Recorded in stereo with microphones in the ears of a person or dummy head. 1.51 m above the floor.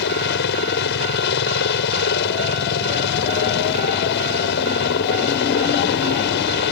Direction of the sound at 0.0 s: 60° left (ahead or behind).